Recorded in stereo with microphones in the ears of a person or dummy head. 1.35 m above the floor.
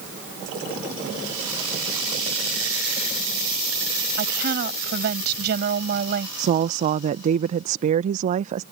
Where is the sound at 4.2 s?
55° right (ahead or behind).